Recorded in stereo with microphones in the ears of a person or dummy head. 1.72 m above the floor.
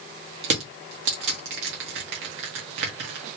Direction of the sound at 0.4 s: 75° right (ahead or behind).